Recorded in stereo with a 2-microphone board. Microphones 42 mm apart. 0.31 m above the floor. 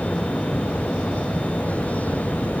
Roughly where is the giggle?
I don't hear a giggle.